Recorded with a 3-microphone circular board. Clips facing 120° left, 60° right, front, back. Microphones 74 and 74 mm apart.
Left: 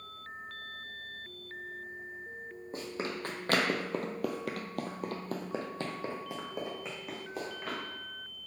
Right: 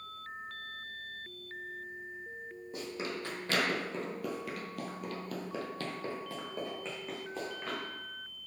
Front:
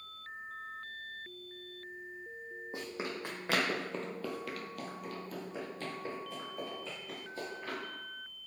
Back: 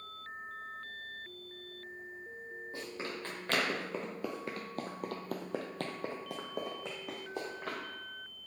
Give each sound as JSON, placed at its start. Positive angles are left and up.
{"t": 2.7, "sound": "running footsteps", "azimuth_deg": 70, "distance_m": 1.2}